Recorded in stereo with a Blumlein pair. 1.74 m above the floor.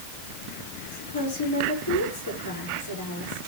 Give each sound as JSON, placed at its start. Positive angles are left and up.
{"t": 0.9, "sound": "a woman speaking", "azimuth_deg": 60, "distance_m": 6.0}